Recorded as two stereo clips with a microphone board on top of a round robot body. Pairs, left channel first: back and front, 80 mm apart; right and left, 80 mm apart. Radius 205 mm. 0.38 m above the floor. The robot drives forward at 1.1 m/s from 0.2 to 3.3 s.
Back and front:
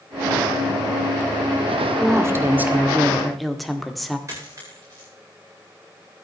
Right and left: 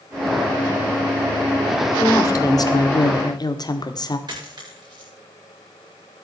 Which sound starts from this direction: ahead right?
A woman speaking, at 2.0 s.